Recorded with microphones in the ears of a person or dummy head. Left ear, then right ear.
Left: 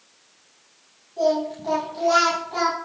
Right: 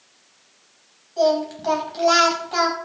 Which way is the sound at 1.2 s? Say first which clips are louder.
Right 2 dB; 60° right (ahead or behind).